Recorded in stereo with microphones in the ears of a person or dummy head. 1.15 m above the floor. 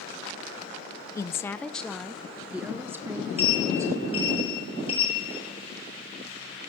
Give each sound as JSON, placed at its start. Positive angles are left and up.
{"t": 1.1, "sound": "a woman speaking", "side_deg": 20, "distance_m": 0.7}
{"t": 3.4, "sound": "a sliding door", "side_deg": 25, "distance_m": 2.5}